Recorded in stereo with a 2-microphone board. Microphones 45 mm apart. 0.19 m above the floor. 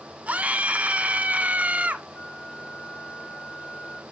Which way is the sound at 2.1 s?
65° left (ahead or behind).